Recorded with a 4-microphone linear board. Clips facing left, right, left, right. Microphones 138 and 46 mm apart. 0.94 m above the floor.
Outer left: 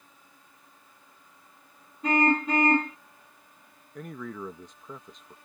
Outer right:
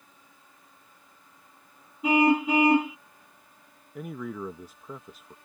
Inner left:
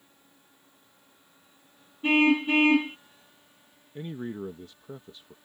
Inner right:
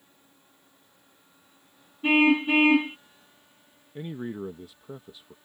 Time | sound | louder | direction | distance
2.0 | a car horn | outer right 3 dB, inner right 1 dB | 10° right (ahead or behind) | ?
4.0 | a man speaking | outer right 3 dB, inner right 1 dB | 10° right (ahead or behind) | ?